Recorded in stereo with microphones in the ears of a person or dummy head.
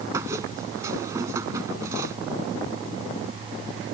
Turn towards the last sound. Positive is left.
turn(degrees=-15)  # may be behind; listen again after turning